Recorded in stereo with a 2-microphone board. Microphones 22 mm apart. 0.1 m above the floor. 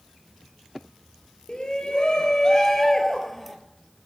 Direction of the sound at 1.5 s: 40° left (ahead or behind).